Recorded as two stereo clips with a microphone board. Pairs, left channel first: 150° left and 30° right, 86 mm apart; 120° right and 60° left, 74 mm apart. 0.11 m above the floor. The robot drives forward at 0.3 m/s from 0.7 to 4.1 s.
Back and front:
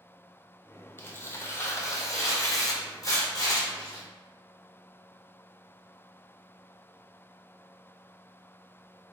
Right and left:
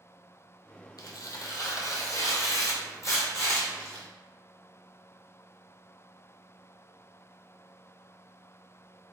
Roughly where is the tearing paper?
Behind right.